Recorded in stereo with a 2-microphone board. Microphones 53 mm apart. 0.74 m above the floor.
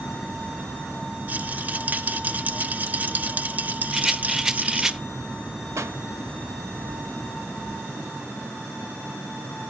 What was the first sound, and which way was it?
A rattle, 35° right (ahead or behind).